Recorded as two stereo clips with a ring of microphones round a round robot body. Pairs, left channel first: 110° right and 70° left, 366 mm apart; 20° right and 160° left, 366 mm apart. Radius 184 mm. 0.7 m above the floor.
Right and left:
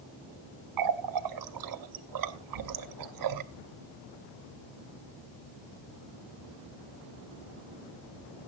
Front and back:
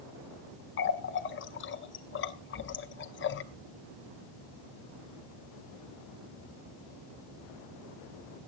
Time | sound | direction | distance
0.8 | a running tap | 35° left | 0.8 m